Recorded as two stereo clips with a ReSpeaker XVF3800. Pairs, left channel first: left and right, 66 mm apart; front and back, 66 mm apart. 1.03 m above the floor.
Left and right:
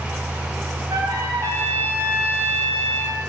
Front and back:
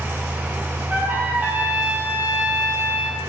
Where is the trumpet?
120° right, 3 m.